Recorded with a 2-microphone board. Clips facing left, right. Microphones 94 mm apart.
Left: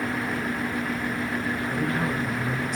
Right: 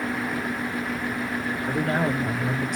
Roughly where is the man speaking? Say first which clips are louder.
Right 5 dB; right.